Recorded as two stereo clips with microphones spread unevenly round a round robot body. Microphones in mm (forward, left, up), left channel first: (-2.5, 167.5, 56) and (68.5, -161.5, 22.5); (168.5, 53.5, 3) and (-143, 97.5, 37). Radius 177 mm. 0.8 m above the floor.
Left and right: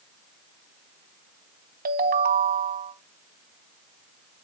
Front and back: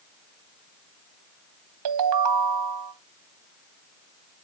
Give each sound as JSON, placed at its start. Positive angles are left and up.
{"t": 1.9, "sound": "a ringtone", "azimuth_deg": -145, "distance_m": 0.8}